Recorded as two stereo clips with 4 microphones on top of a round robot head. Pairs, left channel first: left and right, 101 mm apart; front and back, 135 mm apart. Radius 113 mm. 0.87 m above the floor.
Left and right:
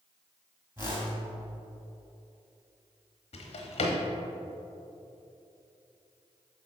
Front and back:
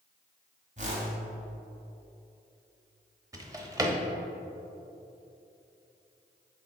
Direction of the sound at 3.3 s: 115° left.